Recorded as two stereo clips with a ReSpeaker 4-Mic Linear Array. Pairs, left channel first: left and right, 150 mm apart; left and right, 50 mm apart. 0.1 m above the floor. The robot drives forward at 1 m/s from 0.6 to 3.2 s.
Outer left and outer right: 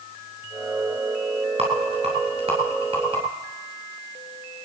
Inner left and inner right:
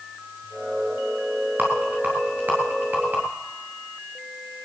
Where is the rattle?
40° right (ahead or behind), 10 m; by 3.2 s 35° right (ahead or behind), 11 m.